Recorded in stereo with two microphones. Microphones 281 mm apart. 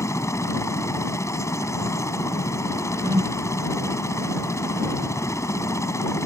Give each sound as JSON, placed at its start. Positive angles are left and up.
{"t": 0.0, "sound": "a helicopter", "side_deg": 10}
{"t": 3.0, "sound": "a whoosh", "side_deg": -20}